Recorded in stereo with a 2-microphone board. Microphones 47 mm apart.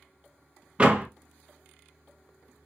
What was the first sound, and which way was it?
A door slam, 25° right (ahead or behind).